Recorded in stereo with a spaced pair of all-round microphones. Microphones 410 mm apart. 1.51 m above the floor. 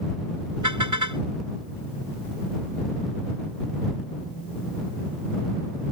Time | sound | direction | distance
0.6 | a car horn | 45° right (ahead or behind) | ?